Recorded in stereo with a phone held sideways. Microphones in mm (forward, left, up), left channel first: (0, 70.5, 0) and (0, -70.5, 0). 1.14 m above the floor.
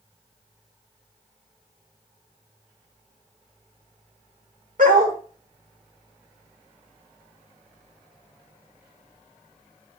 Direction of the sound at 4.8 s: 70° right (ahead or behind).